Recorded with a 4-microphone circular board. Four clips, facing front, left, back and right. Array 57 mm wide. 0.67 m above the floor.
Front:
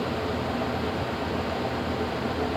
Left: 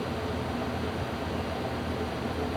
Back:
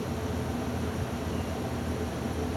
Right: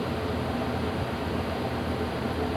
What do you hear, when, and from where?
Only background noise.